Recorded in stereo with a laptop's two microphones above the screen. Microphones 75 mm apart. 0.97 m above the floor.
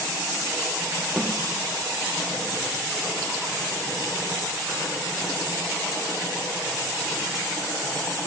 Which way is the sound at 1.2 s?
Centre (ahead or behind).